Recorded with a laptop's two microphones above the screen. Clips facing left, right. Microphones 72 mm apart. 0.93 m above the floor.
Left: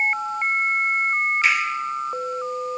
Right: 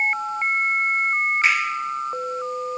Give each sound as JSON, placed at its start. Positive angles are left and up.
{"t": 1.4, "sound": "a finger snap", "side_deg": -45, "distance_m": 1.9}